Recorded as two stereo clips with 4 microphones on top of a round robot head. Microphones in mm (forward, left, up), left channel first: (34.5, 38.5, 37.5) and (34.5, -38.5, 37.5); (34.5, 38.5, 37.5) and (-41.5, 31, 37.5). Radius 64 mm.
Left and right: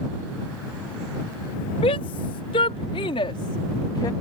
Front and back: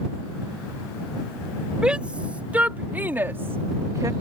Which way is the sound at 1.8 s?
110° left.